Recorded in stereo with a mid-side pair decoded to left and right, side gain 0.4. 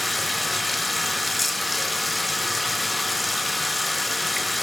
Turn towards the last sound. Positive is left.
turn(degrees=20)